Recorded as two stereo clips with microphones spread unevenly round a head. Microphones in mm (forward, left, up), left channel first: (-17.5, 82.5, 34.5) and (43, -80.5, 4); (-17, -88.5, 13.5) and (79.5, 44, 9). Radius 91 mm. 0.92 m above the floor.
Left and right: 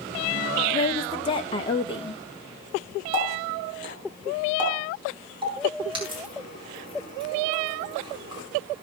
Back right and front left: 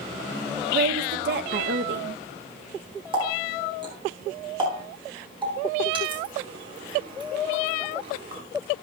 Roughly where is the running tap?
Ahead.